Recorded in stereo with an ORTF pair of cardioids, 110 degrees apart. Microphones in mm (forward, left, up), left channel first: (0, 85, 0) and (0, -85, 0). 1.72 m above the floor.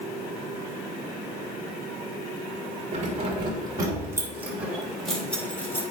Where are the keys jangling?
40° right, 3 m; by 5.8 s 15° left, 3.5 m.